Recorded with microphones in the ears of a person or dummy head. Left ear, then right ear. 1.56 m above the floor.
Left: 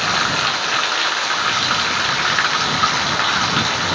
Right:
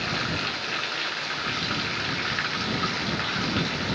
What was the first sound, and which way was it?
Running water, 45° left (ahead or behind).